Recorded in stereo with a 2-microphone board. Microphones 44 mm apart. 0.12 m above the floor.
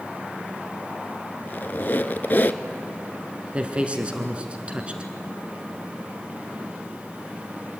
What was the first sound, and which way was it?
A squeak, 45° left (ahead or behind).